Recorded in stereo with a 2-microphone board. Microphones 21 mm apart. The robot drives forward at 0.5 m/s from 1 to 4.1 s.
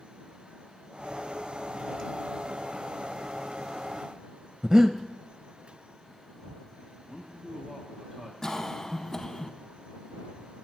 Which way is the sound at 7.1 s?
20° right (ahead or behind).